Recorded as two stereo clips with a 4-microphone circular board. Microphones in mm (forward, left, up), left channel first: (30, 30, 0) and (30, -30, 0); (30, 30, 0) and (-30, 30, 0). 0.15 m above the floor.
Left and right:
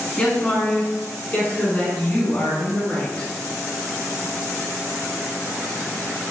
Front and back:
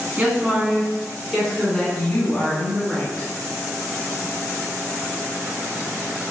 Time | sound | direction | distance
0.2 | a woman speaking | 135° left | 1.7 m